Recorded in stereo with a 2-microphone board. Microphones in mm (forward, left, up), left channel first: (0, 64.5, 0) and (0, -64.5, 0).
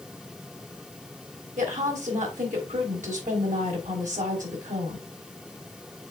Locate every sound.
1.6 s a woman speaking: 75° right (ahead or behind), 3 m